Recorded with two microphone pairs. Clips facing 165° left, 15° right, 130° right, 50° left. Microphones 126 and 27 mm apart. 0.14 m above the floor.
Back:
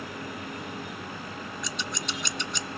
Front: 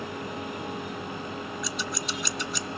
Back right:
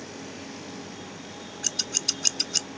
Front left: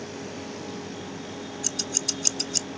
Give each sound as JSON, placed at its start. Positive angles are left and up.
{"t": 1.6, "sound": "scissors", "azimuth_deg": -90, "distance_m": 0.6}